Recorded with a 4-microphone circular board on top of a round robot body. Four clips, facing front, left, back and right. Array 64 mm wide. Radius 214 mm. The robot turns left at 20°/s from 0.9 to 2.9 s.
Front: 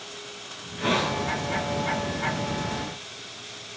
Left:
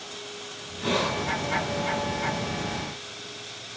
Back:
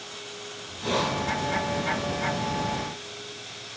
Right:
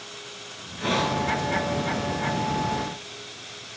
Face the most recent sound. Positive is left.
turn(degrees=-75)